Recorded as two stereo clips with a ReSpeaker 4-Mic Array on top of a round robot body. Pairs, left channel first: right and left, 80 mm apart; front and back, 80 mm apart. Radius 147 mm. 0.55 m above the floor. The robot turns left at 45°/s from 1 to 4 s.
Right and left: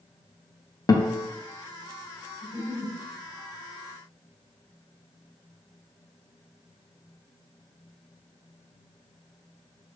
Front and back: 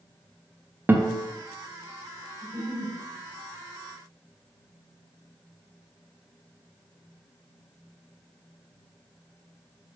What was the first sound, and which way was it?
A guitar, 120° right.